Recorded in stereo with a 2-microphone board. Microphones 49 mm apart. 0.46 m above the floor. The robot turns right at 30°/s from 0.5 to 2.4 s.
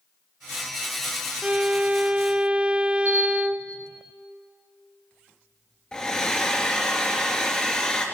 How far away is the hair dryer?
About 2.5 m.